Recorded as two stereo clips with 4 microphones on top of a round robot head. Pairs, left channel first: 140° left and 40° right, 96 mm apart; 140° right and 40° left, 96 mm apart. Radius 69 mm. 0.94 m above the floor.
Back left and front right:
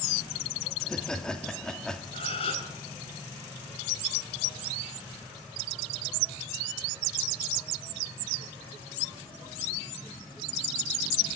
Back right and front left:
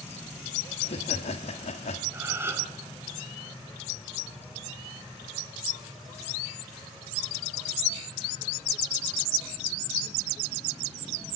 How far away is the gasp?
About 3 m.